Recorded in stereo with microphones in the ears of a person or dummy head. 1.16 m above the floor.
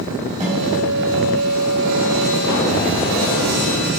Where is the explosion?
60° left (ahead or behind), 1.1 m.